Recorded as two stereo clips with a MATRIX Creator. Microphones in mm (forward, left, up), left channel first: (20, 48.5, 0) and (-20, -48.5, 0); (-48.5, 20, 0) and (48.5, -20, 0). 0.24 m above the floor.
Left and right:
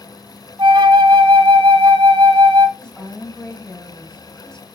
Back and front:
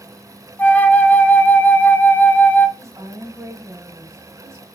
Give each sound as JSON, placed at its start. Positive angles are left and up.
{"t": 0.6, "sound": "a flute", "azimuth_deg": -135, "distance_m": 0.9}
{"t": 2.8, "sound": "a woman speaking", "azimuth_deg": -10, "distance_m": 1.2}